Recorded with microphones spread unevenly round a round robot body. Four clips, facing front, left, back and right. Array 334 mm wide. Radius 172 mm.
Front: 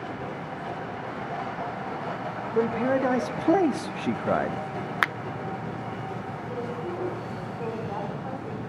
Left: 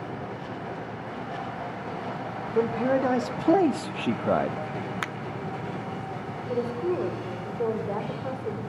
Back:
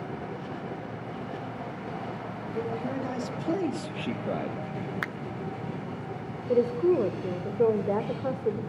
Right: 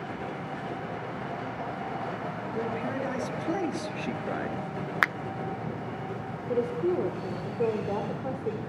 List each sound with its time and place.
2.5 s a man speaking: 45° left, 2 m; by 4.6 s 80° left, 0.9 m
5.0 s a finger snap: 45° right, 0.6 m
6.5 s a woman speaking: 170° right, 2.5 m